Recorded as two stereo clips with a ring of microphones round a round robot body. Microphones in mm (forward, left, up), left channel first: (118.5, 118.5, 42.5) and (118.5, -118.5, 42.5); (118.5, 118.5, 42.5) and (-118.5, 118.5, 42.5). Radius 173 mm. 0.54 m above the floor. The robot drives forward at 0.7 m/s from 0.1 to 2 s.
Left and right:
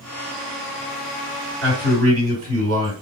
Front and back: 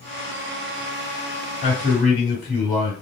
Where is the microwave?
I don't hear a microwave.